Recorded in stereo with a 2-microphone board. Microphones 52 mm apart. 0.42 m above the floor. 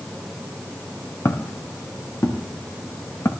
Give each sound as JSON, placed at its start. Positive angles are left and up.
{"t": 1.2, "sound": "footsteps", "side_deg": 75, "distance_m": 4.0}